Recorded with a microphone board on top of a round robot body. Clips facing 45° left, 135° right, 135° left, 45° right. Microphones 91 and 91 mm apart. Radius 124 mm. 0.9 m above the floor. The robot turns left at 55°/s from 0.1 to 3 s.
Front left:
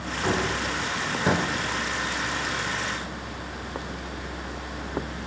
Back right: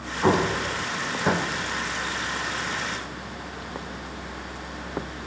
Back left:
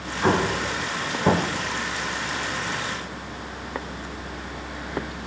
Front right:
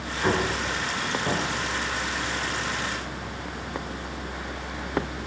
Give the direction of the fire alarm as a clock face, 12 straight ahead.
No fire alarm in this recording.